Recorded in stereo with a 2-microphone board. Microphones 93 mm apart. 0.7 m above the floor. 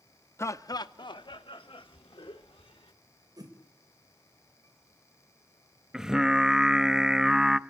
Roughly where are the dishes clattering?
I don't hear dishes clattering.